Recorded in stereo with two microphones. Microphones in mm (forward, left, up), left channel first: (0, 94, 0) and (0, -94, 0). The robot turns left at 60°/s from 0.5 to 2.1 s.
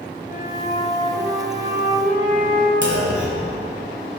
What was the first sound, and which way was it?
A flute, 55° left.